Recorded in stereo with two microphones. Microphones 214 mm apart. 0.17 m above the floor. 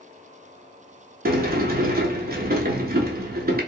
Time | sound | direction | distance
1.2 | a sliding door | 45° right (ahead or behind) | 0.6 m